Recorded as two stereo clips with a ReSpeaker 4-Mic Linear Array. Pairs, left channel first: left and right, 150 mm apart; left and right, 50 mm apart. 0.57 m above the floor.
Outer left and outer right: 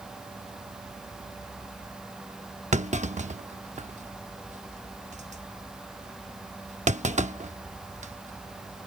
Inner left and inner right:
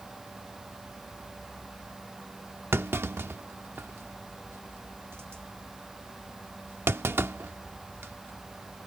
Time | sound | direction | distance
2.7 | a clunk | 50° right (ahead or behind) | ?